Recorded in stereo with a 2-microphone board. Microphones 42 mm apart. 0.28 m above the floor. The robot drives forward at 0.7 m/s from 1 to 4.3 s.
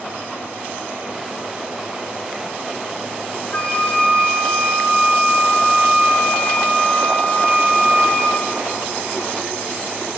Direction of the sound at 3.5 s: 25° left (ahead or behind).